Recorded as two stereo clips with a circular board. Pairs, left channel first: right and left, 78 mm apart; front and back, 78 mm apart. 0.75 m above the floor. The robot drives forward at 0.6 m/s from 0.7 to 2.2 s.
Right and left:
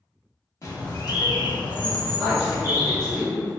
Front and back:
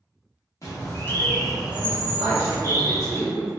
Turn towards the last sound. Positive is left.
turn(degrees=175)